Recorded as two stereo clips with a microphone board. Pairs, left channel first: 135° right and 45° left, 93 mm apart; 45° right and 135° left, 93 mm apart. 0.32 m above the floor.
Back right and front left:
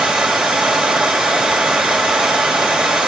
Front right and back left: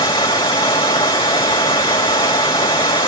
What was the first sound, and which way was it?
Running water, 35° right.